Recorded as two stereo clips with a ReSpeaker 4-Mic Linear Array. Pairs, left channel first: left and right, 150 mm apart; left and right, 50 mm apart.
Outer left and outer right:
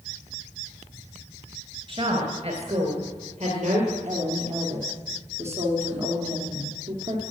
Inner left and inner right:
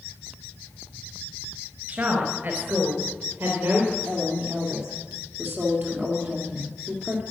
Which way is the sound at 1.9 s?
40° right (ahead or behind).